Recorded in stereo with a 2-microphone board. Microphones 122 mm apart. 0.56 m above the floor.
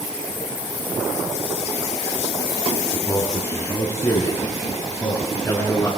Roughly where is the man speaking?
Left.